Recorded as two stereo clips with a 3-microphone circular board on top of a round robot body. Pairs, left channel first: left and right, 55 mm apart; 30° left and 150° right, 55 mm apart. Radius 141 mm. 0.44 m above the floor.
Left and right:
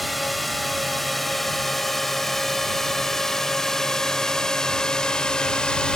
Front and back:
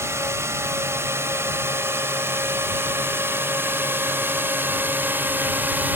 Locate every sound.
0.0 s a drone: straight behind; by 6.0 s 160° left